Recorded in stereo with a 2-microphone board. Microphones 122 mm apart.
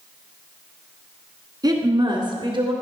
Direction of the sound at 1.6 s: 35° right (ahead or behind).